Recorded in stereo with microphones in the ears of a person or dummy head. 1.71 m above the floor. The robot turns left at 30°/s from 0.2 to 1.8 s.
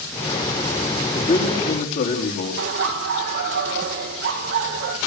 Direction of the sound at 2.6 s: 70° right (ahead or behind).